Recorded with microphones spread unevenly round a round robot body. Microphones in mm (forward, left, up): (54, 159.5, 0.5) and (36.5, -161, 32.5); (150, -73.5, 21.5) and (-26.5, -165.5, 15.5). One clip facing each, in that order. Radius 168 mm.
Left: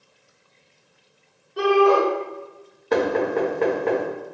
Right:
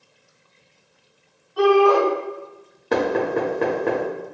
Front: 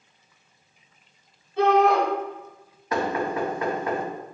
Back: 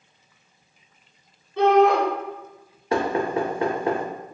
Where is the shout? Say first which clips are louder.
Right 2 dB, back 2 dB; 150° left, 1.6 m.